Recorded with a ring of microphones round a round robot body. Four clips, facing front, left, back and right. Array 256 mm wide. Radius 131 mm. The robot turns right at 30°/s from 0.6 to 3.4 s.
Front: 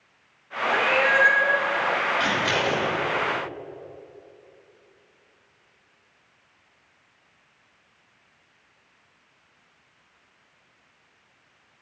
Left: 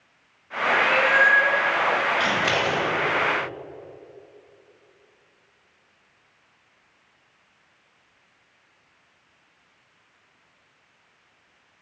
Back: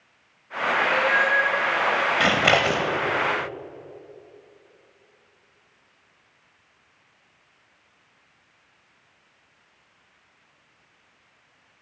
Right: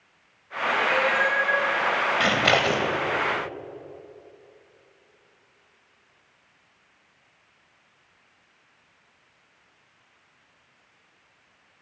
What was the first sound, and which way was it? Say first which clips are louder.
A cat meowing: left 3 dB, front 1 dB; 20° left.